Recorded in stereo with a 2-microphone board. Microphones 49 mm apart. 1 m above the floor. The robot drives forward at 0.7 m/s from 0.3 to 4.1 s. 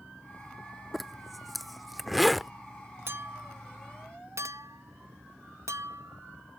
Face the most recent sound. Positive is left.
turn(degrees=-70)  # may be behind; listen again after turning